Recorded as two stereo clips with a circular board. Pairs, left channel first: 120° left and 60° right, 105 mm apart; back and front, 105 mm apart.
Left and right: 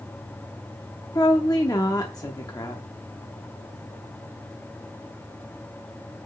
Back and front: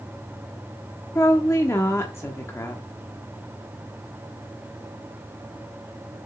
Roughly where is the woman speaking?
Behind left.